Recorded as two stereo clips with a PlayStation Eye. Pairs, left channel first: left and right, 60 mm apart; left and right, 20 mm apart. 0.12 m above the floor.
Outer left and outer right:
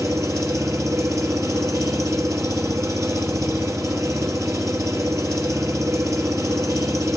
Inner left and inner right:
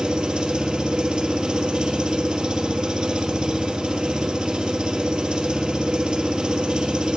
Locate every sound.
0.0 s an engine running: 60° right (ahead or behind), 2 m